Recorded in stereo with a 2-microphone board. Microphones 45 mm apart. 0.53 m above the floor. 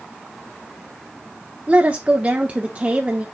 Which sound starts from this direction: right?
A woman speaking, at 1.7 s.